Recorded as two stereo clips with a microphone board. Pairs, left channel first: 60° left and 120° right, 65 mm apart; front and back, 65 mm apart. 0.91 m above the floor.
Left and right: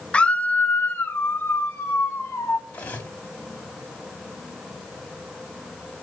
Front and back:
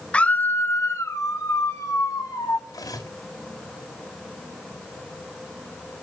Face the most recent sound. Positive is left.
turn(degrees=-10)